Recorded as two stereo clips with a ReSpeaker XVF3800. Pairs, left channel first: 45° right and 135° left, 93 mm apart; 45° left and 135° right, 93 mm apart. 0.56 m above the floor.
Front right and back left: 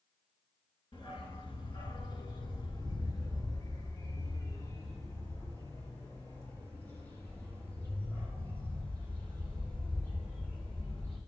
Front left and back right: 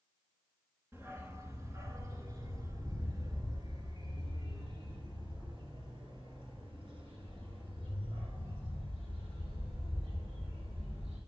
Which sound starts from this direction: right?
A dog barking, at 0.9 s.